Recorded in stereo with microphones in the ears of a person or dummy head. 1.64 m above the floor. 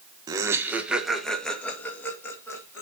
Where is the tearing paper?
I don't hear tearing paper.